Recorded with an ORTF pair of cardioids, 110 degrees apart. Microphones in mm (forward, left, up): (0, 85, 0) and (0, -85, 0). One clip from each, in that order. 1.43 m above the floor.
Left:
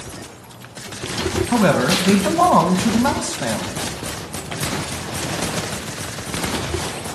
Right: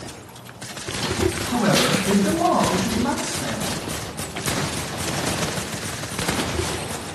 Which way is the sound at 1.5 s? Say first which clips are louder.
Left 4 dB; 60° left.